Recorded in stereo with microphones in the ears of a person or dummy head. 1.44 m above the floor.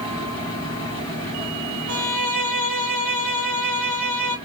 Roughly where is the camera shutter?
I don't hear a camera shutter.